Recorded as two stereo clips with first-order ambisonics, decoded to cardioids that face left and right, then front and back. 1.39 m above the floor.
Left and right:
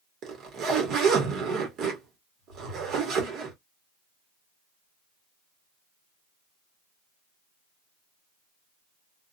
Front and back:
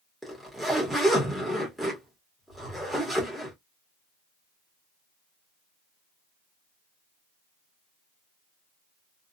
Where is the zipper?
90° right, 0.9 m.